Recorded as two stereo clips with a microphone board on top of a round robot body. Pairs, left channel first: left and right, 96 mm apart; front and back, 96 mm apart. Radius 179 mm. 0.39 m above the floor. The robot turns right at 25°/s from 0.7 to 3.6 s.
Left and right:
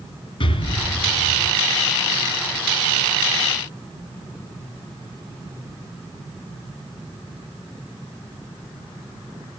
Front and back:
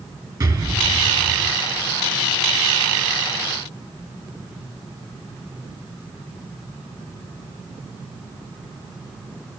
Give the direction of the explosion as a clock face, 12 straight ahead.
8 o'clock.